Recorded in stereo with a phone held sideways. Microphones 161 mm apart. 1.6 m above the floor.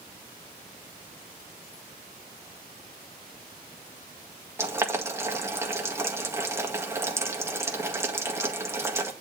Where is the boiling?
15° right (ahead or behind), 1.9 m.